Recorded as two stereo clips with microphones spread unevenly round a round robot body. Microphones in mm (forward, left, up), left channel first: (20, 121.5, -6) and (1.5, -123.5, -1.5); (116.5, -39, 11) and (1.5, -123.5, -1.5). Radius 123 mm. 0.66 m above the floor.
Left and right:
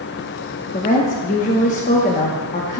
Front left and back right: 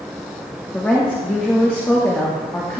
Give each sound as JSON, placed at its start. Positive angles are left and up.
{"t": 0.7, "sound": "a woman speaking", "azimuth_deg": 115, "distance_m": 0.9}